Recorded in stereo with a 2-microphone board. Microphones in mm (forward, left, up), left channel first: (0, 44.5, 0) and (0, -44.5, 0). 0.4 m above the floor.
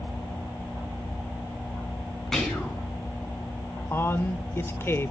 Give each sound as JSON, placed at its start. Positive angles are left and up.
{"t": 2.3, "sound": "whispering", "side_deg": 5, "distance_m": 4.5}
{"t": 3.9, "sound": "a man speaking", "side_deg": 25, "distance_m": 1.0}